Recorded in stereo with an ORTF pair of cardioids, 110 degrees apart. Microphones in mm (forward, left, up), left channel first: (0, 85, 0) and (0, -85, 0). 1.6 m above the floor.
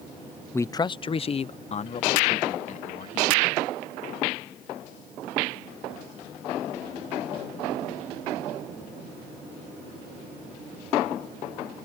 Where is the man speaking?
10° left; by 3.6 s 45° left.